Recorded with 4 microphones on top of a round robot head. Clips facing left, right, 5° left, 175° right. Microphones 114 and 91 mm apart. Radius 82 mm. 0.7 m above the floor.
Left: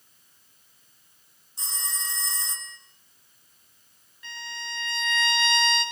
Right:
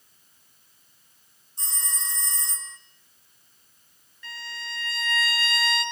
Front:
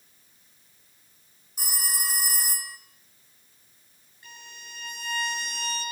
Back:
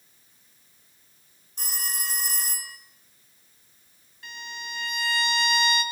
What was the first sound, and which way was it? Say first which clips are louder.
A phone ringing: left 1 dB, front 1 dB; 90° left.